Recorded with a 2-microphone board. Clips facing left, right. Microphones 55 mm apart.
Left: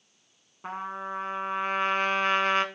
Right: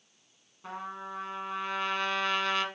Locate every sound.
0.6 s a trumpet: 35° left (ahead or behind), 1.1 m